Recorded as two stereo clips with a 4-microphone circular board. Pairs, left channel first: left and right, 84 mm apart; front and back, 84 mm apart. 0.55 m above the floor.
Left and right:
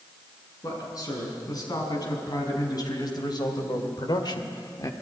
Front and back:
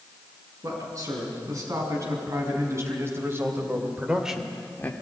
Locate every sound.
0.6 s a man speaking: 135° left, 7 m; by 4.9 s 55° left, 1.4 m